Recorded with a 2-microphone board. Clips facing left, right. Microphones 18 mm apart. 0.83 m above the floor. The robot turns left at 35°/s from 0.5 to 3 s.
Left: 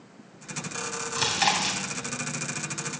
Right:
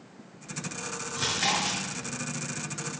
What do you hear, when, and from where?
1.1 s chewing: 85° left, 3 m; by 1.8 s 70° left (ahead or behind), 3 m